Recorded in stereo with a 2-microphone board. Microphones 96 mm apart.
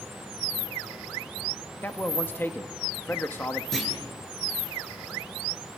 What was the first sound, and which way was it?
A man speaking, 20° left (ahead or behind).